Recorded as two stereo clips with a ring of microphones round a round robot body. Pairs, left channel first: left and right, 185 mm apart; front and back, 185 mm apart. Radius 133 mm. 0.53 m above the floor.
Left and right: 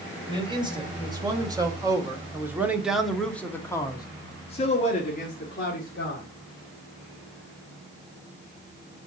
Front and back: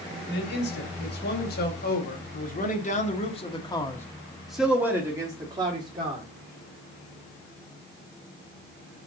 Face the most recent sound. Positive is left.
turn(degrees=125)